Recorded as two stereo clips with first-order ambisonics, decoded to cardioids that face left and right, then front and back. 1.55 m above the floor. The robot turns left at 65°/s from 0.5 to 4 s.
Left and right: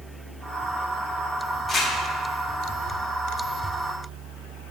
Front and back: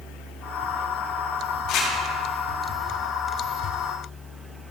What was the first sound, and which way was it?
Crumpling, 10° right.